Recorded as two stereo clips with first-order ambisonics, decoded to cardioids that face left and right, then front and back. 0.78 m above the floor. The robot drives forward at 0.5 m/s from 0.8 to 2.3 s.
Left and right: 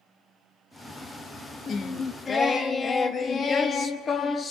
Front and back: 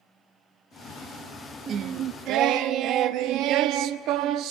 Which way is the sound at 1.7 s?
140° left.